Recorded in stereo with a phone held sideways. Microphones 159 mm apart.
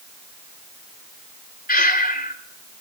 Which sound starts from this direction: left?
Breathing, at 1.7 s.